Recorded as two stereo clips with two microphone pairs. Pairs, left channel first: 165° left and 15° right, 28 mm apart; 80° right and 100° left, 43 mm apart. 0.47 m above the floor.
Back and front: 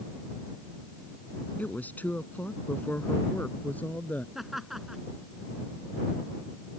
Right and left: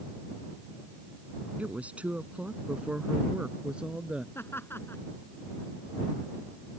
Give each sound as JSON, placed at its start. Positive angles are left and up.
{"t": 1.6, "sound": "a woman speaking", "azimuth_deg": 155}
{"t": 4.3, "sound": "laughter", "azimuth_deg": -100}